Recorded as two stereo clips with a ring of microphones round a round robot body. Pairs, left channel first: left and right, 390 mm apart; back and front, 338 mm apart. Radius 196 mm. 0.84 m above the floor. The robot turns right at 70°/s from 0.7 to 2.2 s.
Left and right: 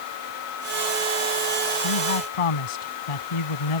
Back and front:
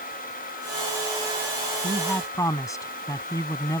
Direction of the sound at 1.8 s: 75° left.